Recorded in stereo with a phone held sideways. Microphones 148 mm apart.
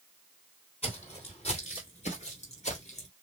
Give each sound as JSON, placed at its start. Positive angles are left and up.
{"t": 0.8, "sound": "footsteps", "side_deg": 45, "distance_m": 3.5}